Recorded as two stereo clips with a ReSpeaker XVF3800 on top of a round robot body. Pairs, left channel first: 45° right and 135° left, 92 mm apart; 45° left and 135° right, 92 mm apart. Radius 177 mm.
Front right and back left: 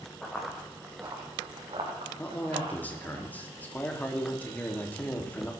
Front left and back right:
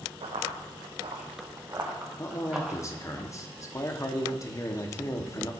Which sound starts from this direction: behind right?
Running footsteps, at 0.2 s.